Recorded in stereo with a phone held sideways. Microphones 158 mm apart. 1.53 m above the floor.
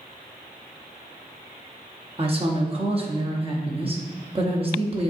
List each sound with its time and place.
2.2 s a woman speaking: 35° right (ahead or behind), 0.8 m